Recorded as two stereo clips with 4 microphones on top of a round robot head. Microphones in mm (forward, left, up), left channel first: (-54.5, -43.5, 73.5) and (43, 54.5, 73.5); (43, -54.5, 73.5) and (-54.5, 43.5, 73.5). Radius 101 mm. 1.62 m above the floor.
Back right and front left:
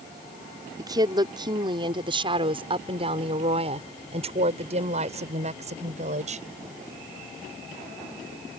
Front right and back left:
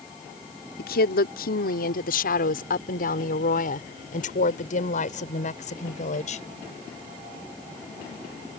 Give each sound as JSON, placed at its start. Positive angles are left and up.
{"t": 0.8, "sound": "a woman speaking", "azimuth_deg": -20}